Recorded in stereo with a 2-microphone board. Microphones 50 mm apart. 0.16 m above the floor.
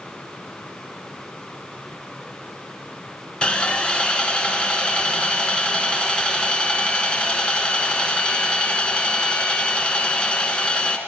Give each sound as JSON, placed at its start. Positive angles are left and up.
{"t": 3.4, "sound": "sawing", "side_deg": 20, "distance_m": 1.2}